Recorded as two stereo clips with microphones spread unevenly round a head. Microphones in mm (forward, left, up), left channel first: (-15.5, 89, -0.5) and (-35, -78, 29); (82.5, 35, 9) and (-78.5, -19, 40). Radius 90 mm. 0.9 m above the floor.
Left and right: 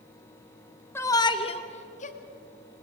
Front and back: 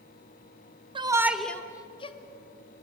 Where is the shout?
140° left, 1.1 m; by 2.2 s 60° left, 1.7 m.